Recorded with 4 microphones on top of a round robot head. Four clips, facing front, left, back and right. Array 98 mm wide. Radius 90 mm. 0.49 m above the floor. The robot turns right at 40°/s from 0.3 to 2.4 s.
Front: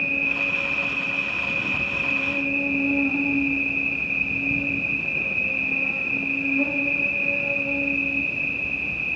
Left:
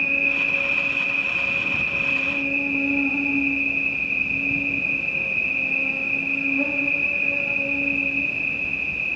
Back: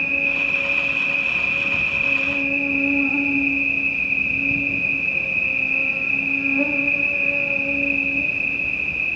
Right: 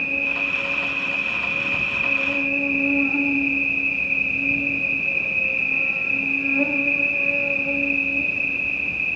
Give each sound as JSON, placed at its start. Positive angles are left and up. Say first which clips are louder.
{"t": 0.0, "sound": "an insect", "louder": "left 1 dB, back 2 dB", "azimuth_deg": 135, "distance_m": 1.5}